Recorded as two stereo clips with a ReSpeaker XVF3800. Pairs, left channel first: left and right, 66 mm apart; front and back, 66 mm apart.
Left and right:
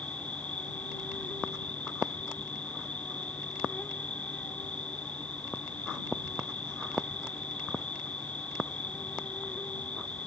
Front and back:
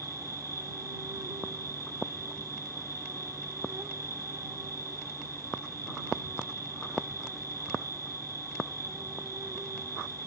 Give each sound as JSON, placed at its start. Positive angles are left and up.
{"t": 0.0, "sound": "an insect", "azimuth_deg": 155}